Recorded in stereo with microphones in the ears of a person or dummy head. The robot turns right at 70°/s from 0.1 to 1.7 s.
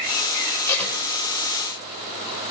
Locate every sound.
0.7 s tape being pulled: 15° left (ahead or behind), 3 m; by 1.0 s 5° right (ahead or behind), 3 m